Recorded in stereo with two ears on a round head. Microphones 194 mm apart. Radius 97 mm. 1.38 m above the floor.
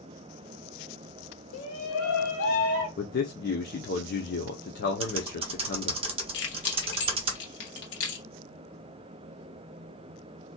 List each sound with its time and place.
1.5 s a shout: 70° left (ahead or behind), 0.7 m; by 2.9 s 55° left (ahead or behind), 1.5 m
3.0 s a man speaking: 45° left (ahead or behind), 0.8 m
5.0 s typing on a keyboard: 25° right (ahead or behind), 0.9 m
6.3 s keys jangling: 60° left (ahead or behind), 1.3 m